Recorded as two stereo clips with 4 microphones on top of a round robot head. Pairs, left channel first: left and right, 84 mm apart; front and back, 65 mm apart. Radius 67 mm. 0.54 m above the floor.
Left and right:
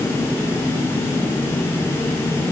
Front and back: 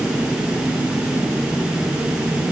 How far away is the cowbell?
No cowbell in this recording.